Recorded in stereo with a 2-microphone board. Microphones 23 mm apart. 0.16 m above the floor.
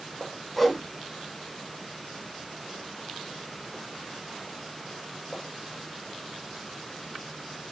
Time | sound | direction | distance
0.6 | a whoosh | 5° right (ahead or behind) | 0.7 m